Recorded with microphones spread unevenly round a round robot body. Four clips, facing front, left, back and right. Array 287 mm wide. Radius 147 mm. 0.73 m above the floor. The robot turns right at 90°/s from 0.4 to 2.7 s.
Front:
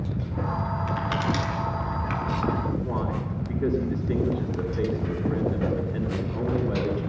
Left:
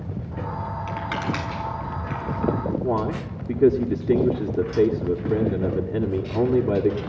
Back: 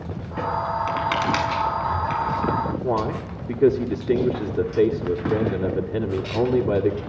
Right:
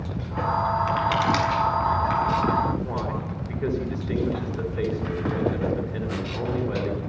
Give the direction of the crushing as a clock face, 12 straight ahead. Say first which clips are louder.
Right 6 dB, back 3 dB; 6 o'clock.